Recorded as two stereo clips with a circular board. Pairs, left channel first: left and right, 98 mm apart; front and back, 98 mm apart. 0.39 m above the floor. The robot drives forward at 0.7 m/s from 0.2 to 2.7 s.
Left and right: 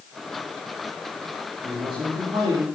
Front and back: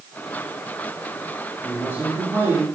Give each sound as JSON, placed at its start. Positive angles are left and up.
{"t": 1.6, "sound": "a man speaking", "azimuth_deg": -115, "distance_m": 4.5}